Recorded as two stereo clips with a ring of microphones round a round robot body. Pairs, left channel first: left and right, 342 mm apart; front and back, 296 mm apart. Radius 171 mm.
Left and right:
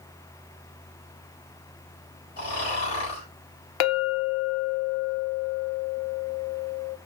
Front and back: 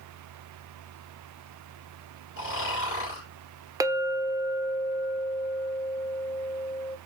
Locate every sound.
2.4 s snoring: 45° left, 3.5 m
3.8 s a clink: 100° left, 0.6 m